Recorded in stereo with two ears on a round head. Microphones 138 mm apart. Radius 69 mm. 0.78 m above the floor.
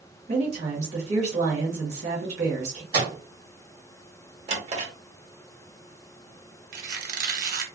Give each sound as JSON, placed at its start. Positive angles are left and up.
{"t": 0.3, "sound": "a woman speaking", "side_deg": -45, "distance_m": 1.3}
{"t": 2.9, "sound": "a microwave", "side_deg": -25, "distance_m": 1.9}
{"t": 4.5, "sound": "a drawer", "side_deg": -40, "distance_m": 1.0}
{"t": 6.7, "sound": "a squeak", "side_deg": -60, "distance_m": 0.7}